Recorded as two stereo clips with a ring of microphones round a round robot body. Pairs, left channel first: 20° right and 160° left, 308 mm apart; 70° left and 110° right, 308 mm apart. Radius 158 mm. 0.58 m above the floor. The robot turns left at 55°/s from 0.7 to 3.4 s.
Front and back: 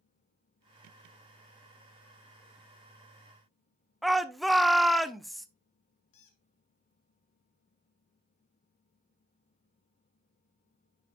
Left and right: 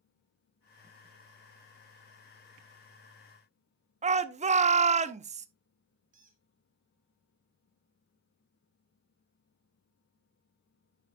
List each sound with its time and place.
4.0 s a shout: 115° right, 0.6 m
6.1 s a squeak: 45° right, 1.9 m